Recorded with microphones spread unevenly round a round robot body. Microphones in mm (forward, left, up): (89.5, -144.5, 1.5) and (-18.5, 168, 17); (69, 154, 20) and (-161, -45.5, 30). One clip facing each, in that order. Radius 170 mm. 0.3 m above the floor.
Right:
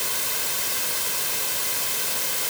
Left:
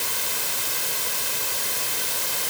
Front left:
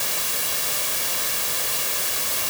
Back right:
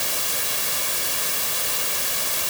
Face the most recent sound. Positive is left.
No sound to turn to.